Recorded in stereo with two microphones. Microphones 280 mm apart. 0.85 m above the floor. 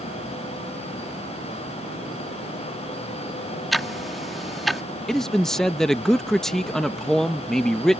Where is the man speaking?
Centre (ahead or behind).